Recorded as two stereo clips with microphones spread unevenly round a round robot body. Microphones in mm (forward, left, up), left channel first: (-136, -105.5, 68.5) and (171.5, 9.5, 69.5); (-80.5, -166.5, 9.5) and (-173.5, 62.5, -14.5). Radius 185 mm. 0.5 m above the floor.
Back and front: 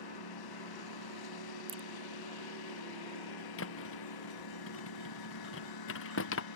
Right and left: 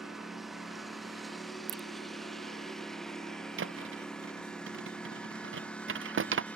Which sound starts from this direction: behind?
A lawn mower, at 0.0 s.